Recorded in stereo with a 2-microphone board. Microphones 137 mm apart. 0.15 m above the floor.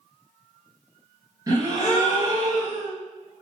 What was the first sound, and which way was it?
A gasp, 25° right (ahead or behind).